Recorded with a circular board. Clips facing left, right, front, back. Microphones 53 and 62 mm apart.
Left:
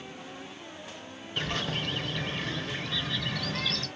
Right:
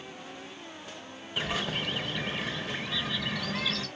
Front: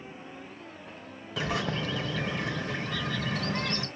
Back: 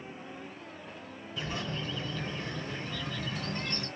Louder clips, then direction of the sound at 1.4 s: Even, front 6 dB; 5° right.